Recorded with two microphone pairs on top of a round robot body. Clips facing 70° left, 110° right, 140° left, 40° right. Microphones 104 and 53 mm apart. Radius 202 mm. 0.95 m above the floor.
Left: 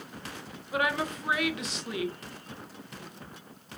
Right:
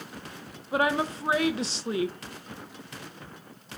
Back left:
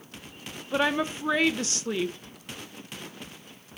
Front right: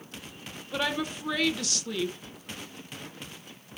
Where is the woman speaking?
165° right, 0.5 m.